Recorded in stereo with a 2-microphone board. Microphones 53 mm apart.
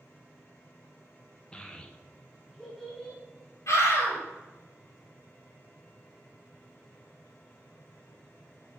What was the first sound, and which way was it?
A child speaking, 15° left (ahead or behind).